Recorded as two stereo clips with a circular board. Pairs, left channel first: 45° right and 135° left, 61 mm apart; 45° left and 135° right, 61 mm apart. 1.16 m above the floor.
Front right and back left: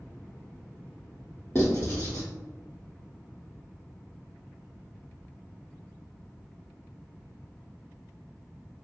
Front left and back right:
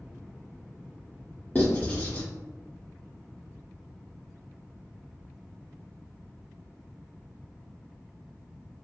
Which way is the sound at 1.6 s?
5° right.